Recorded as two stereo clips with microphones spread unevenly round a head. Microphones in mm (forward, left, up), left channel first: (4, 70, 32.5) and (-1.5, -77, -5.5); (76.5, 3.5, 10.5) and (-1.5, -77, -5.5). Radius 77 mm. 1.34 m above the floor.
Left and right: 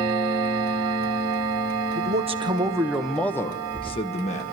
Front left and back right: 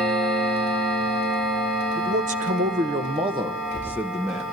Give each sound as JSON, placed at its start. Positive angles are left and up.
{"t": 1.9, "sound": "a man speaking", "azimuth_deg": -130, "distance_m": 1.8}